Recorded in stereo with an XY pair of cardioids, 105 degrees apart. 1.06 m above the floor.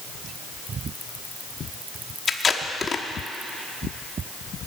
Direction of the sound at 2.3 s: 35° left.